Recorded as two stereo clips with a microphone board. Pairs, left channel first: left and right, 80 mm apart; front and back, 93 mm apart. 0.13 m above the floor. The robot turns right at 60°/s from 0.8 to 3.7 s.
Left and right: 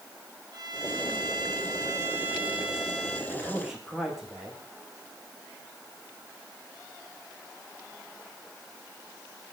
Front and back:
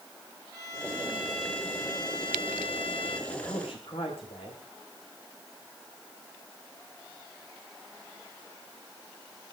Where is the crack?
I don't hear a crack.